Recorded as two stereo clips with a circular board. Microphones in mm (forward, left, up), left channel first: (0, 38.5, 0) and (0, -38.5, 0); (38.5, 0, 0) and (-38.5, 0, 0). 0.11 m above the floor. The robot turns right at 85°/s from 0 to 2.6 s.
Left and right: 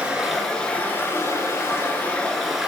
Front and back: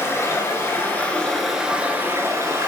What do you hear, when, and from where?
0.0 s running water: 30° right, 1.4 m; by 2.7 s 170° right, 1.4 m